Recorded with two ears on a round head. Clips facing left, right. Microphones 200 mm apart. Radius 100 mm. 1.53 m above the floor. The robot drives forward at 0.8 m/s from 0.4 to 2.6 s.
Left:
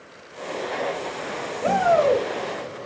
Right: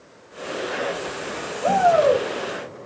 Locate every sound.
1.6 s a shout: 35° left (ahead or behind), 3.5 m; by 2.2 s 30° left (ahead or behind), 3.5 m